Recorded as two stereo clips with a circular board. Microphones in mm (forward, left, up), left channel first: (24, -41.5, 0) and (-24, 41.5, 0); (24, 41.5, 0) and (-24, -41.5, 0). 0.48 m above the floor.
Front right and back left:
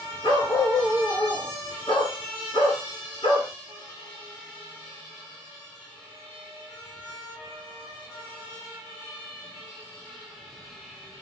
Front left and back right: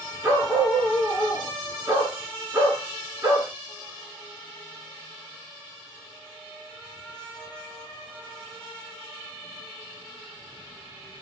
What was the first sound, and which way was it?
A dog barking, 55° right.